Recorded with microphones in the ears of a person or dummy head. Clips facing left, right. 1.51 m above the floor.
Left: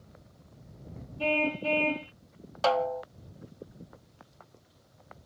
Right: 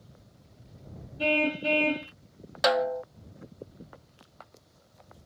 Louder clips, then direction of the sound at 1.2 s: Right 2 dB; 15° right (ahead or behind).